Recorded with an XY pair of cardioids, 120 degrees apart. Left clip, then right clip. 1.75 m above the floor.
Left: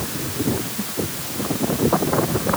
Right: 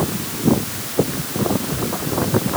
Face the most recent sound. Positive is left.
No sound to turn to.